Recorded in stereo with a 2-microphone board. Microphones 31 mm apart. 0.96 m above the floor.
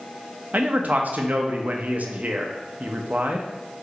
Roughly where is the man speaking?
Right.